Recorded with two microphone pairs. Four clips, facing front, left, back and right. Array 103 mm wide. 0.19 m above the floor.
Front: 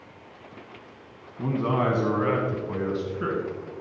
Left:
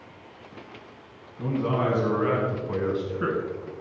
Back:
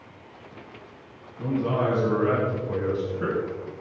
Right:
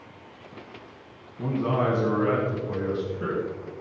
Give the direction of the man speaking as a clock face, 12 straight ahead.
1 o'clock.